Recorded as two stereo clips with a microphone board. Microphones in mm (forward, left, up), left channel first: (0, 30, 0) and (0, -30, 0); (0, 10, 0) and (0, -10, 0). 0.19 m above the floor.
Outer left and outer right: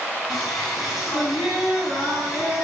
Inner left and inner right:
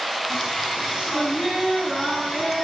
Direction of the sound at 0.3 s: Centre (ahead or behind).